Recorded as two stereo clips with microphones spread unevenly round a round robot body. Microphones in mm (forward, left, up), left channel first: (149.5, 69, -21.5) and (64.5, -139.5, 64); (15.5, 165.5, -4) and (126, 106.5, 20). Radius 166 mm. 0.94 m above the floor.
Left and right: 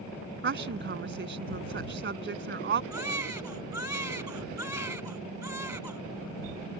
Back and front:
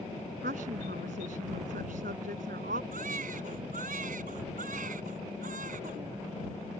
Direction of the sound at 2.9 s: 35° right.